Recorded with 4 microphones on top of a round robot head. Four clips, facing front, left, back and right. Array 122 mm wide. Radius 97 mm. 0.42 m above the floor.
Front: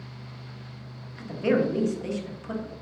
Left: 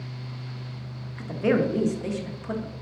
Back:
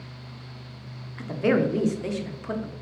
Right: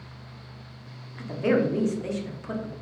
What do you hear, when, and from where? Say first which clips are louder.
1.2 s a woman speaking: even, back 1 dB; 165° left, 0.8 m